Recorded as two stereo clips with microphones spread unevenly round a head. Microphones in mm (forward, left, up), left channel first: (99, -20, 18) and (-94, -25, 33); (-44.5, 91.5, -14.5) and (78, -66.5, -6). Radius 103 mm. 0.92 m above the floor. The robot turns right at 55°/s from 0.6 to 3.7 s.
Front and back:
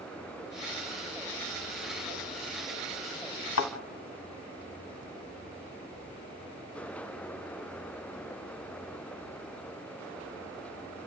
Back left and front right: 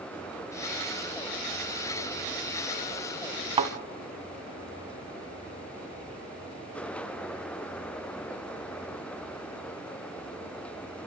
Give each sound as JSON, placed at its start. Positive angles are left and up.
{"t": 3.6, "sound": "a thud", "azimuth_deg": 5, "distance_m": 1.4}